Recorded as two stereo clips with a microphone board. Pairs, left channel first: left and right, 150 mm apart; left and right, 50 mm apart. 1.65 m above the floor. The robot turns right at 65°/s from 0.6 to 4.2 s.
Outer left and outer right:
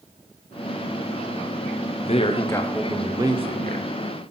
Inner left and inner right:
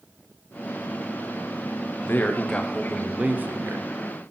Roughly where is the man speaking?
Behind left.